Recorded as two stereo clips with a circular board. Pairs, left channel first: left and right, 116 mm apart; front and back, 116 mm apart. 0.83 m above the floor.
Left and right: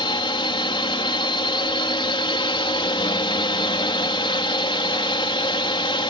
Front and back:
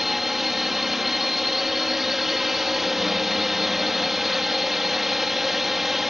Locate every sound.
0.0 s a drone: 95° left